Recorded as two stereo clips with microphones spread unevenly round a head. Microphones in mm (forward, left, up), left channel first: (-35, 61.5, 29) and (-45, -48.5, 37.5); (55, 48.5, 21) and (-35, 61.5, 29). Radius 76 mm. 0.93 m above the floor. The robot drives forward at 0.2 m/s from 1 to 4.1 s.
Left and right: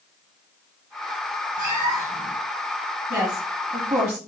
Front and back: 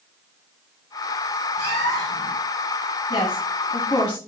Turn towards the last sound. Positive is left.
turn(degrees=-40)